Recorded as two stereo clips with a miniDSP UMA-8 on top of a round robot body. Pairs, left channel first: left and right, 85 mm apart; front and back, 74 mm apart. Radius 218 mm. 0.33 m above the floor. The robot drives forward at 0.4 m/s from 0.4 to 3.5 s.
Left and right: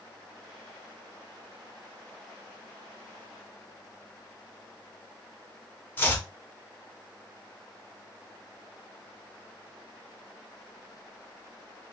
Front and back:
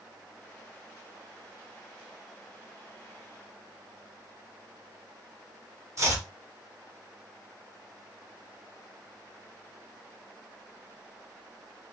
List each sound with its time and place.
6.0 s chopping: 150° left, 0.9 m